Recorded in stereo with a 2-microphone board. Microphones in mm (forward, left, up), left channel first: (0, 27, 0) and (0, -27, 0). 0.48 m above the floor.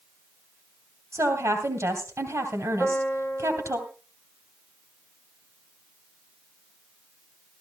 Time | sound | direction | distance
1.1 | a woman speaking | 60° right (ahead or behind) | 2.5 m
2.8 | a piano | 10° left (ahead or behind) | 9 m